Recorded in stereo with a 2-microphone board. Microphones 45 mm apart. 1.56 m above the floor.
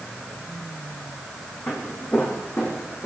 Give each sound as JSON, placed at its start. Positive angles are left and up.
{"t": 1.7, "sound": "footsteps", "side_deg": 50, "distance_m": 5.0}